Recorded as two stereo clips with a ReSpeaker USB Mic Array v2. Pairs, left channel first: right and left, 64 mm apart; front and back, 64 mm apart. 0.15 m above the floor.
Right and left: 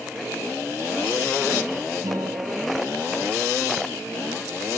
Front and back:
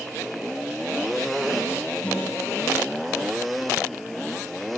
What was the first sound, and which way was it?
A guitar, 70° left.